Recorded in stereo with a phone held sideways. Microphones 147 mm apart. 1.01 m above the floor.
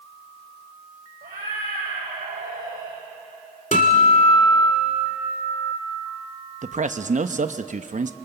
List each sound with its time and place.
1.2 s a cat meowing: 85° right, 7 m
3.7 s a guitar: 60° left (ahead or behind), 2.5 m
6.6 s a man speaking: 60° right (ahead or behind), 0.9 m